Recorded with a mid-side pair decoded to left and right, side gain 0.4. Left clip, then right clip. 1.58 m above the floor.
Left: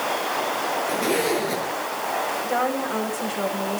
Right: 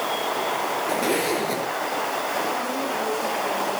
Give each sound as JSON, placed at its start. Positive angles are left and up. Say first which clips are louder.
{"t": 0.9, "sound": "a zipper", "louder": "even", "azimuth_deg": -5, "distance_m": 6.0}
{"t": 2.4, "sound": "a woman speaking", "louder": "left 2 dB", "azimuth_deg": 70, "distance_m": 9.5}